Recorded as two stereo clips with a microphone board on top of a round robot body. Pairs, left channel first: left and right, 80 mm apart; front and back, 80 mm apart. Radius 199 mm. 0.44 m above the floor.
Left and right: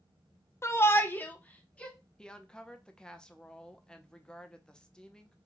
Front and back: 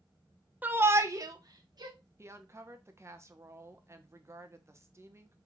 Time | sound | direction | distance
0.6 | a shout | 125° left | 0.9 m
2.2 | a woman speaking | 165° left | 0.9 m